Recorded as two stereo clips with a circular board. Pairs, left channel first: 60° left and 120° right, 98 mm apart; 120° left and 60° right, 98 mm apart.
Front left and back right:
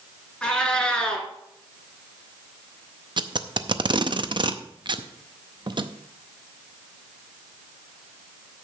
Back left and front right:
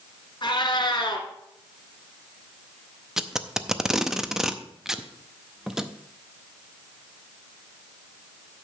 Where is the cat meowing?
135° left, 1.6 m.